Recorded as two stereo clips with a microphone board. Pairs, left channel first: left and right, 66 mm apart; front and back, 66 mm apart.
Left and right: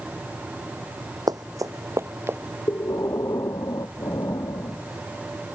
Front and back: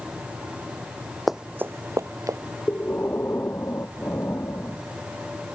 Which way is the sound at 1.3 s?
90° right.